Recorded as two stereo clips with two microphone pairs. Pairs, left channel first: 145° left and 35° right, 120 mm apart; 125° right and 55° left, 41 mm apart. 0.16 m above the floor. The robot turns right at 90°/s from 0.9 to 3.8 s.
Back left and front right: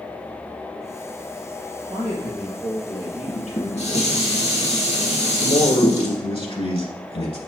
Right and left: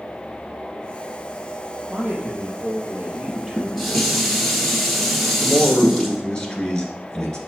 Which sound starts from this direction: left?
Dishes clattering, at 3.3 s.